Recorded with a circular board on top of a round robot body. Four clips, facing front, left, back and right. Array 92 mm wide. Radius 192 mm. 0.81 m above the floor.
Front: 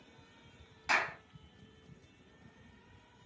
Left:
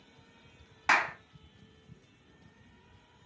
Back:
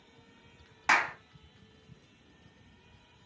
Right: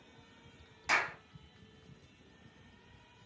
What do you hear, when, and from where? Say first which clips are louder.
0.9 s a clap: left 6 dB, back 6 dB; 135° left, 1.3 m